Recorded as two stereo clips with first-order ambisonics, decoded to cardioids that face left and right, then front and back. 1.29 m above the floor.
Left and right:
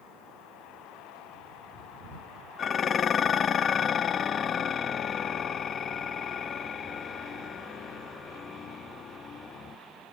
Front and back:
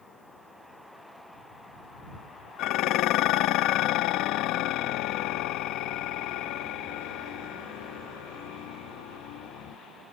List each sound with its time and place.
2.6 s dishes clattering: 30° left